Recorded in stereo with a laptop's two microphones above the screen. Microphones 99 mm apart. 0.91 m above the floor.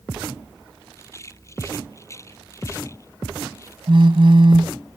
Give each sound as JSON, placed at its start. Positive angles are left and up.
{"t": 0.9, "sound": "a rattle", "side_deg": 30}
{"t": 3.9, "sound": "a phone buzzing", "side_deg": -60}